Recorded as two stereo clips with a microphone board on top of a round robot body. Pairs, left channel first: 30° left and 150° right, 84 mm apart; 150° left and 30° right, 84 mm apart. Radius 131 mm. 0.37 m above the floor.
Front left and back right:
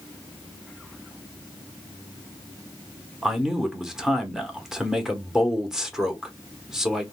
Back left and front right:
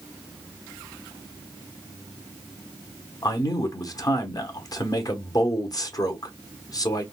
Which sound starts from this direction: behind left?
A man speaking, at 3.2 s.